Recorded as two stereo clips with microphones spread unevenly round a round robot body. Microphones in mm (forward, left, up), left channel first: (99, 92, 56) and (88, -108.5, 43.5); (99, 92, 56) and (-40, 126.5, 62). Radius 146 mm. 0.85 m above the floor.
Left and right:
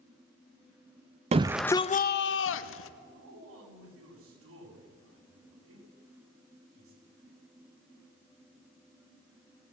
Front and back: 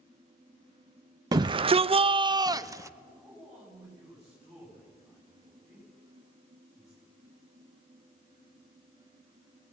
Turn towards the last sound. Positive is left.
turn(degrees=-105)